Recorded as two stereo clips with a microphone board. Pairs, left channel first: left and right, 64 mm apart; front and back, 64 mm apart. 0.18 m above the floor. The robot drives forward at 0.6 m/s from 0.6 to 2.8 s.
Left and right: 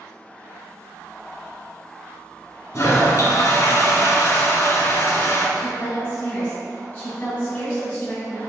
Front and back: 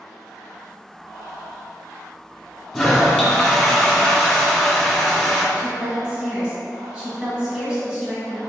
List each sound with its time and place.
2.7 s a toilet flushing: 90° left, 1.3 m
5.5 s a woman speaking: 125° left, 1.2 m